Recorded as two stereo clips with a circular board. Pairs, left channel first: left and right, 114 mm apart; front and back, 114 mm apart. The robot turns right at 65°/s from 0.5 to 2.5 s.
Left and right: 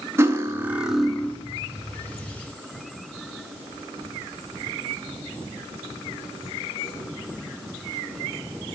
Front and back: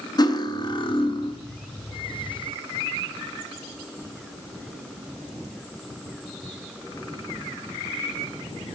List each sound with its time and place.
0.2 s cutlery clinking: 30° right, 0.8 m; by 1.4 s 25° left, 0.8 m